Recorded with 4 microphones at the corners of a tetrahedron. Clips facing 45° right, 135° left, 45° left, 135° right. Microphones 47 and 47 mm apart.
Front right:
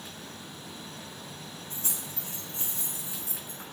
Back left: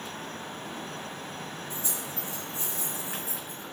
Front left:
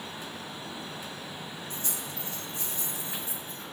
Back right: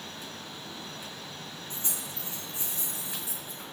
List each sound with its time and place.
1.7 s keys jangling: 75° right, 3 m; by 3.6 s 60° right, 1.9 m